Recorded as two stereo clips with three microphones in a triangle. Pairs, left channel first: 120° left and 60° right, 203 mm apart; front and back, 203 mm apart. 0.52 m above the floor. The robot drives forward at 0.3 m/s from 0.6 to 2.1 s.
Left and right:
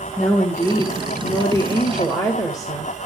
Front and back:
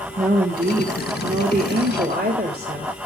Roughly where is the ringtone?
No ringtone in this recording.